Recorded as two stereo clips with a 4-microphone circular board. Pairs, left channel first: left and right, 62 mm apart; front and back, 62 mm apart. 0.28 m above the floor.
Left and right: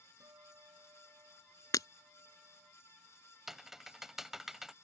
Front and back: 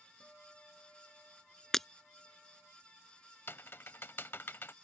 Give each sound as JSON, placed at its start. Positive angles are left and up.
{"t": 0.2, "sound": "a guitar", "azimuth_deg": -70}
{"t": 1.7, "sound": "breaking glass", "azimuth_deg": 80}
{"t": 3.5, "sound": "typing on a keyboard", "azimuth_deg": -10}